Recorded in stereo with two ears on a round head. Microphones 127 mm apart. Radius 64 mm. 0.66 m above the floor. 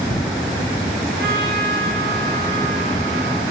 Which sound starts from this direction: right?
A trumpet, at 1.2 s.